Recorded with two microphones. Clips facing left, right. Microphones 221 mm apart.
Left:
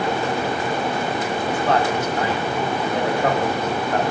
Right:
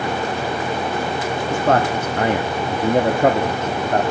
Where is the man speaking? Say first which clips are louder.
Right 3 dB; 45° right (ahead or behind), 1.0 m; by 4.0 s 40° right (ahead or behind), 1.4 m.